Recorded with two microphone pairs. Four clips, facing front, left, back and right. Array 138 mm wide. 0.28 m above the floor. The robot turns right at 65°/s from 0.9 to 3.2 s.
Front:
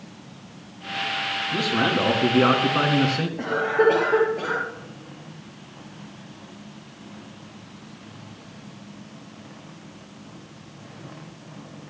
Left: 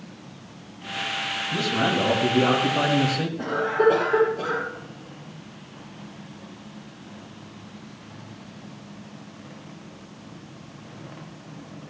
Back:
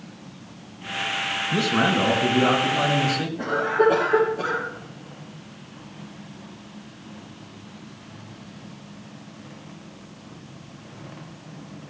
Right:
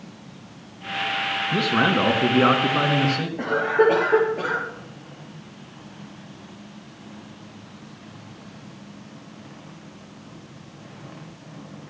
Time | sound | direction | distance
1.5 | a man speaking | 120° right | 3.5 m
3.4 | a cough | 60° right | 5.5 m